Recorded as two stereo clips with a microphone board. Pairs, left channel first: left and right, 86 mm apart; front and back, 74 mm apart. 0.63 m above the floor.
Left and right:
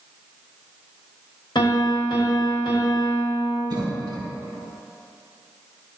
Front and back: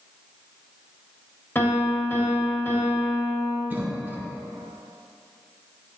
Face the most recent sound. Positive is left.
turn(degrees=-120)